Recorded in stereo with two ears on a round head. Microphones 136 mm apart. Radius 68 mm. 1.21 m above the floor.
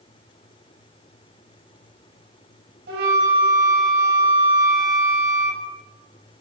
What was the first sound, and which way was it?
A flute, 80° right.